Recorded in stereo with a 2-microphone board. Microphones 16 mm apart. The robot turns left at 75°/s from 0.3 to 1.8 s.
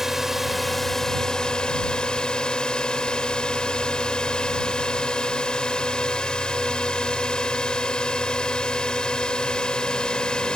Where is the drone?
155° right; by 10.6 s 95° left.